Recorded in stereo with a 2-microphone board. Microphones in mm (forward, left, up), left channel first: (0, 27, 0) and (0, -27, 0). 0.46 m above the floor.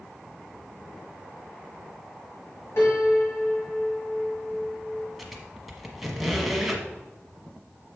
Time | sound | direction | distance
2.8 | a piano | 65° left (ahead or behind) | 2.5 m
5.2 | a squeak | 5° right (ahead or behind) | 1.1 m